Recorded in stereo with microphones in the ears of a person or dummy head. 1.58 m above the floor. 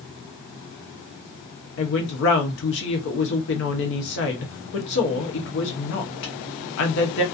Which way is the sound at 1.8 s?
60° left (ahead or behind).